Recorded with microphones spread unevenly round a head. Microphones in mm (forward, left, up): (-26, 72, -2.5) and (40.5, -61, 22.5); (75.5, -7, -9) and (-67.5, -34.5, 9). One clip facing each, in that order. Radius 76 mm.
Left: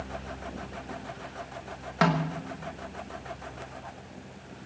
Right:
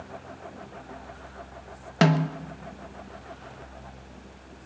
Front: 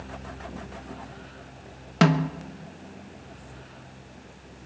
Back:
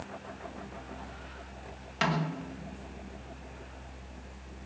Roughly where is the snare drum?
Ahead.